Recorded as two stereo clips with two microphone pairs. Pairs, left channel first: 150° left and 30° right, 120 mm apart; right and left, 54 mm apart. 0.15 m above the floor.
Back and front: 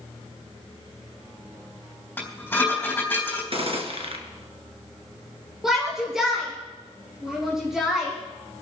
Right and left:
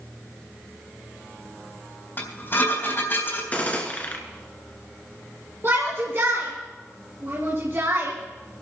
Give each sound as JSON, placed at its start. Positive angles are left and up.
{"t": 2.2, "sound": "dishes clattering", "azimuth_deg": -135, "distance_m": 4.0}
{"t": 3.5, "sound": "a gunshot", "azimuth_deg": -35, "distance_m": 1.6}
{"t": 5.6, "sound": "a shout", "azimuth_deg": 60, "distance_m": 2.5}